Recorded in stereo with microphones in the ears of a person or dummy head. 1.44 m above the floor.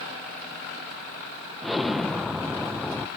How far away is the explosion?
About 0.6 m.